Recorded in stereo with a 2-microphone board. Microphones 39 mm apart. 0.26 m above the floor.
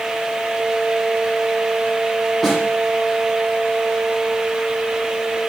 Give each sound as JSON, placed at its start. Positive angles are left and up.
{"t": 2.4, "sound": "a snare drum", "side_deg": 5, "distance_m": 8.5}